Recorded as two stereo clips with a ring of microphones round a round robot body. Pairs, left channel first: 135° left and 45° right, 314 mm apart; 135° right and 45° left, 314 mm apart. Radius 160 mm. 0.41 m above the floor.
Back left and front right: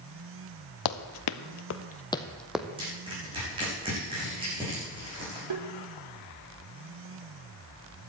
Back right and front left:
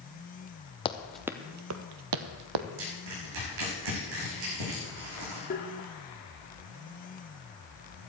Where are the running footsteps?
150° left, 0.9 m; by 2.7 s 40° left, 1.2 m.